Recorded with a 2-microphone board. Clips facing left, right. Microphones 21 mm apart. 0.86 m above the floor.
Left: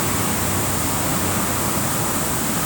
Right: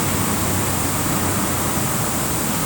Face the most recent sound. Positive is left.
No sound to turn to.